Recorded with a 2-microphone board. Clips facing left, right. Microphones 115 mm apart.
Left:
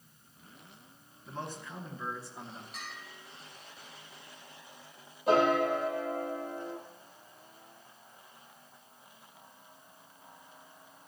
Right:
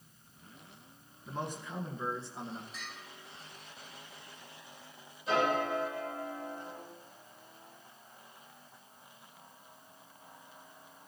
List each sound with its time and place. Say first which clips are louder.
1.3 s a man speaking: right 2 dB; 15° right (ahead or behind), 1.9 m; by 2.6 s 30° right (ahead or behind), 2.5 m
2.7 s a bell: left 2 dB; 70° left (ahead or behind), 5.5 m
5.3 s a piano: left 5 dB; 60° left (ahead or behind), 4.5 m